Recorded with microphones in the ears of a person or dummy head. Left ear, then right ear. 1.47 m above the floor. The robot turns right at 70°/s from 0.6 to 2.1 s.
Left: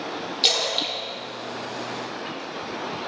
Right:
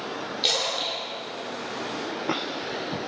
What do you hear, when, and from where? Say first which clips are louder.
0.4 s a splash: left 3 dB; 10° left (ahead or behind), 2.0 m; by 2.4 s 55° left (ahead or behind), 2.0 m